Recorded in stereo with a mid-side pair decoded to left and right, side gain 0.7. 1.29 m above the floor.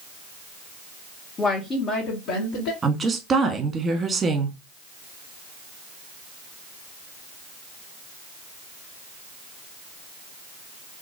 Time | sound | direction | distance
1.4 | a woman speaking | 20° left | 0.9 m
2.8 | a woman speaking | 25° right | 1.0 m